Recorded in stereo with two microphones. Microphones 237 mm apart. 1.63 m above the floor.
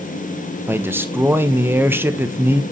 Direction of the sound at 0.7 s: 10° right (ahead or behind).